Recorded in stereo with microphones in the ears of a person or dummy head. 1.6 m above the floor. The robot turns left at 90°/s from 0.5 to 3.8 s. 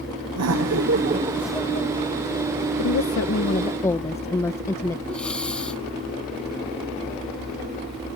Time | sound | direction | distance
0.4 | laughter | 90° right | ?
2.8 | a woman speaking | 105° left | ?
5.1 | breathing | 5° left (ahead or behind) | ?